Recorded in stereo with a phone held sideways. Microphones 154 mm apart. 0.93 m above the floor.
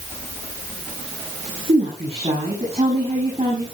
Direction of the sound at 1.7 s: 40° right (ahead or behind).